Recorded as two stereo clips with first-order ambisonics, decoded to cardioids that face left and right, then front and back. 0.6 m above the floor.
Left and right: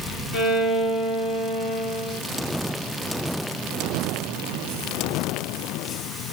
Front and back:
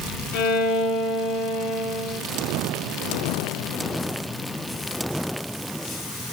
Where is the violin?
25° left, 0.9 m.